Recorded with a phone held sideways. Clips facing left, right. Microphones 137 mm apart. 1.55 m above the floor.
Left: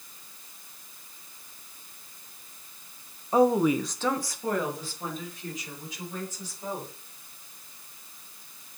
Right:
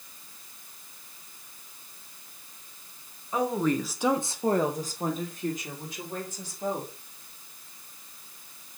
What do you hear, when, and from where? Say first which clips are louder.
3.3 s a woman speaking: left 5 dB; 35° left (ahead or behind), 0.8 m; by 6.9 s 60° right (ahead or behind), 3.5 m